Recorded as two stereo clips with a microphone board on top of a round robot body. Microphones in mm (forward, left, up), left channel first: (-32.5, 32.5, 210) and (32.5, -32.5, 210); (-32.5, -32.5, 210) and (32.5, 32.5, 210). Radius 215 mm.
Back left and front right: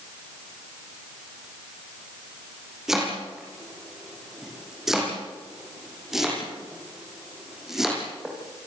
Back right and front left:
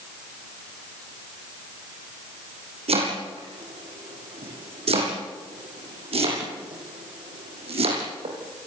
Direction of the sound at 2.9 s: 40° left.